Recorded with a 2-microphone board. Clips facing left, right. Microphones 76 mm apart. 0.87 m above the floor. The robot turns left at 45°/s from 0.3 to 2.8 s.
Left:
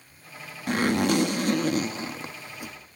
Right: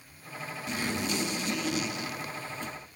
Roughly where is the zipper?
Left.